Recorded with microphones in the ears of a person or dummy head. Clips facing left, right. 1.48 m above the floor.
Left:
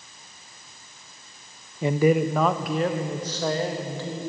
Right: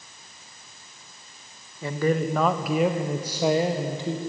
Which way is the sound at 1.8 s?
20° left (ahead or behind).